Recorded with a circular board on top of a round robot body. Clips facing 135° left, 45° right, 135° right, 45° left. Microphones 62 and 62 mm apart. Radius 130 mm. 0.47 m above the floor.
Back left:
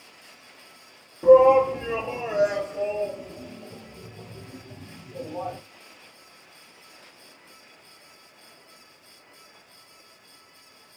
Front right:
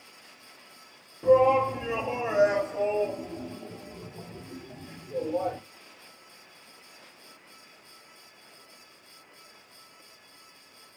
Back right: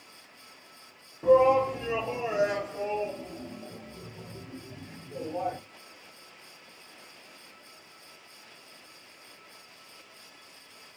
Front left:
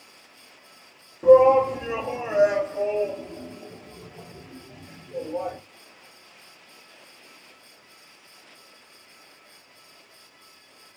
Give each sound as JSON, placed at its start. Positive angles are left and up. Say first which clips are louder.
{"t": 1.2, "sound": "a shout", "louder": "back left 6 dB, front left 6 dB", "azimuth_deg": 85, "distance_m": 0.9}